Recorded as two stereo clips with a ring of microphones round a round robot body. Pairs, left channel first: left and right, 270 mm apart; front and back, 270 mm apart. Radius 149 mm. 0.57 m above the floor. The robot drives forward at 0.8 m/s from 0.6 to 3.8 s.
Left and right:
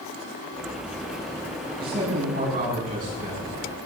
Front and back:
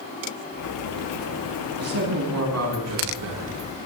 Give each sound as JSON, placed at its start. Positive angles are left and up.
{"t": 1.8, "sound": "a man speaking", "azimuth_deg": -150, "distance_m": 5.5}